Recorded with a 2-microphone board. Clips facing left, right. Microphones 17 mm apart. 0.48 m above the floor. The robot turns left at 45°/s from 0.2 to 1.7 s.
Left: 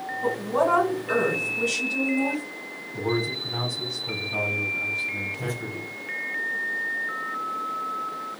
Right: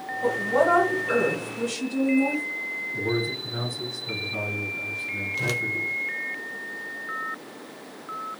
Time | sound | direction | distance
0.2 | a woman speaking | 150° right | 2.5 m
2.9 | a man speaking | 75° left (ahead or behind) | 2 m
5.4 | a whoosh | 70° right (ahead or behind) | 0.5 m